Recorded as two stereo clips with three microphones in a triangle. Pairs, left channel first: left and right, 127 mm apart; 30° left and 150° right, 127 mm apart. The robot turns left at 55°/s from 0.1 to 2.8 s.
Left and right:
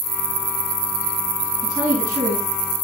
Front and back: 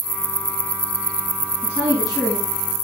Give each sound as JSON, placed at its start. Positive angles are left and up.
{"t": 1.6, "sound": "a woman speaking", "azimuth_deg": -5, "distance_m": 4.5}